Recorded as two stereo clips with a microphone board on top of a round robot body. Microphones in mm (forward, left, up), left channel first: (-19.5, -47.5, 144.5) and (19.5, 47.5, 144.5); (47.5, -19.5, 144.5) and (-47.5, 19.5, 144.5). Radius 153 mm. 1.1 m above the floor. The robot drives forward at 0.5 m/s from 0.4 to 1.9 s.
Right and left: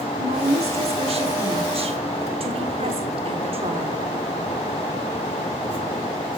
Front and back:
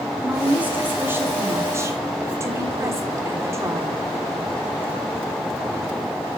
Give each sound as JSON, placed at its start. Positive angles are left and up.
{"t": 0.2, "sound": "a woman speaking", "azimuth_deg": 80, "distance_m": 3.5}